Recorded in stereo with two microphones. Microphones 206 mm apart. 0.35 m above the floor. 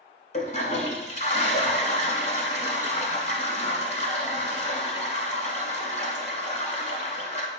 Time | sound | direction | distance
0.3 | a toilet flushing | 35° left (ahead or behind) | 0.7 m